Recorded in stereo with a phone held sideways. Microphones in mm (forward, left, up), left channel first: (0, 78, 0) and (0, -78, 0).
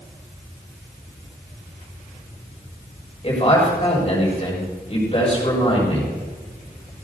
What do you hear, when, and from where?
3.2 s a man speaking: 35° left (ahead or behind), 7.5 m